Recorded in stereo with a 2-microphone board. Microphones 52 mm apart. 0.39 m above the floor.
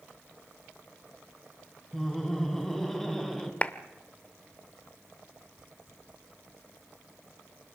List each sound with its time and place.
1.9 s laughter: 10° left (ahead or behind), 3.5 m; by 3.5 s 5° left (ahead or behind), 2.5 m
3.6 s a clap: 25° left (ahead or behind), 0.9 m